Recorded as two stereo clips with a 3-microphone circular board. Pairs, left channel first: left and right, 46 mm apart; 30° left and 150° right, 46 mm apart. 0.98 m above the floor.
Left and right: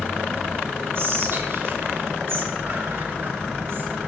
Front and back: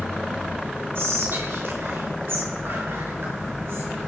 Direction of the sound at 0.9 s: 120° right.